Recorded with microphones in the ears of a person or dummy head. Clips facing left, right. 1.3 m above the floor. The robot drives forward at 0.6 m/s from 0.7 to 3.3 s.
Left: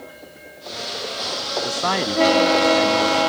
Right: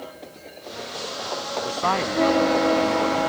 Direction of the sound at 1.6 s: 20° left (ahead or behind).